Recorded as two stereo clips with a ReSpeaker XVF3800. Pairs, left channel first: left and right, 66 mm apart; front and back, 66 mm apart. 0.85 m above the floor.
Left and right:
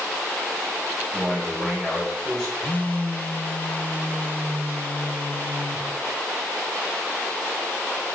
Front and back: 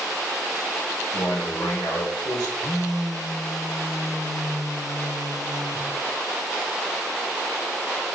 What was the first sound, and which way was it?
A man speaking, 20° left.